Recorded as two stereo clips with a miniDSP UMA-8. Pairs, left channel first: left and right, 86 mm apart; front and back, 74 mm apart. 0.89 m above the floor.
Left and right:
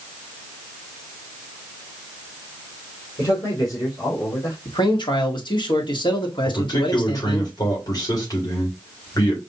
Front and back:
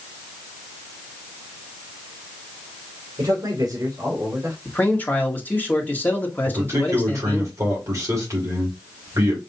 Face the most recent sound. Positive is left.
turn(degrees=135)